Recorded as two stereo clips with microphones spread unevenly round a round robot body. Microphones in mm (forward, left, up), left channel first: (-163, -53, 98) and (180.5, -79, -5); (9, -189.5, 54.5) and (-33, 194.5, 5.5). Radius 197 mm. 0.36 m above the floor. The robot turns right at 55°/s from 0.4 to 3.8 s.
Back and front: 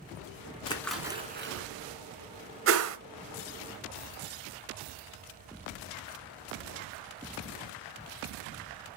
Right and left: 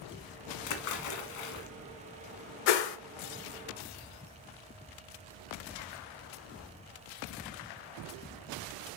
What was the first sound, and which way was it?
A splash, 110° right.